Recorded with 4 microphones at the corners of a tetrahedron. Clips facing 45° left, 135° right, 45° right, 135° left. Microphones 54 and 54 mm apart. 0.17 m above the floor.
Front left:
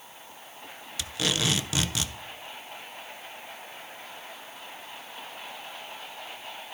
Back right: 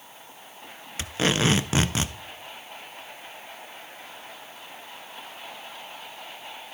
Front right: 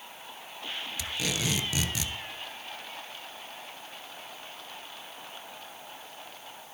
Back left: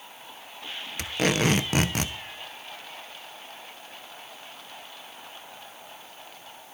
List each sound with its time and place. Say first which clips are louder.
1.0 s tape being pulled: back right 5 dB, back left 9 dB; 170° left, 0.6 m